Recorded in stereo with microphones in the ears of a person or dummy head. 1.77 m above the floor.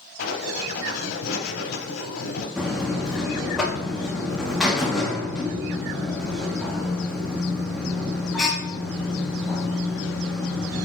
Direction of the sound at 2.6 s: Centre (ahead or behind).